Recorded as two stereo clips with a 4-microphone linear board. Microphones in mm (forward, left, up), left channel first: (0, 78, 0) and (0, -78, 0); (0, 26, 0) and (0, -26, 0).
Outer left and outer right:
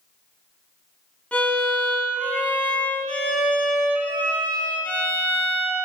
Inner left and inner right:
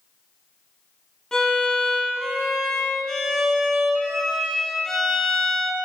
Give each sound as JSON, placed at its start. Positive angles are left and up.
{"t": 1.3, "sound": "a violin", "side_deg": 10, "distance_m": 1.5}